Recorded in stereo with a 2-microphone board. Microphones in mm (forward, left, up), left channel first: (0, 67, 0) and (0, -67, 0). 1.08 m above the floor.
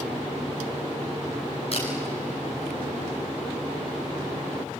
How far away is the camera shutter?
About 5 m.